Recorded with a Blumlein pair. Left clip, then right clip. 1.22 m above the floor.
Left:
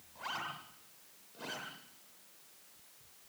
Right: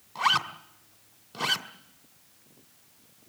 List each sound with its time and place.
0.1 s a zipper: 55° right, 2.5 m